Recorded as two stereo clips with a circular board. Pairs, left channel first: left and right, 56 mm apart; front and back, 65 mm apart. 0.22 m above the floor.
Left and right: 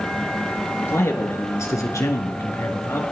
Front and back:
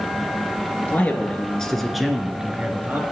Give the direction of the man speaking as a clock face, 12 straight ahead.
10 o'clock.